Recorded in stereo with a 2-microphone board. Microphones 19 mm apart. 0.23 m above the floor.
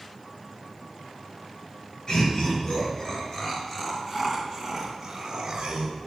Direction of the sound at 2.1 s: 40° left (ahead or behind).